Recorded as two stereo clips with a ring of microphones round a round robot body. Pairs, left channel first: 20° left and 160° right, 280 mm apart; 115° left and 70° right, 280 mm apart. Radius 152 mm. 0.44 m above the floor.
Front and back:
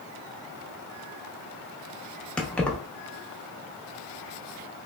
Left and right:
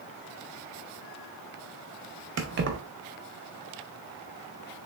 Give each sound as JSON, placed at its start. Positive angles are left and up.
{"t": 2.4, "sound": "keys jangling", "azimuth_deg": -60, "distance_m": 0.8}